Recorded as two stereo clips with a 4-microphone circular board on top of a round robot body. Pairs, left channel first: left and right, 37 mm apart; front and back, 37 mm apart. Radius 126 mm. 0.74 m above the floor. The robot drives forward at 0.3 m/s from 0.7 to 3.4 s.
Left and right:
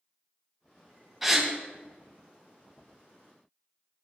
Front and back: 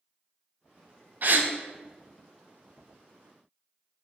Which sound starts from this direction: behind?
A gasp, at 1.2 s.